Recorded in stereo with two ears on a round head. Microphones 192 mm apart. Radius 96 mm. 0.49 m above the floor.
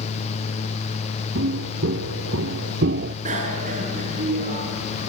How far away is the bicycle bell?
About 5.5 m.